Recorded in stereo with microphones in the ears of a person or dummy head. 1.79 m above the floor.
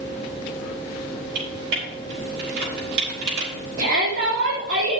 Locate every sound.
1.4 s typing on a keyboard: 60° right (ahead or behind), 4 m
3.8 s a shout: 60° right (ahead or behind), 3.5 m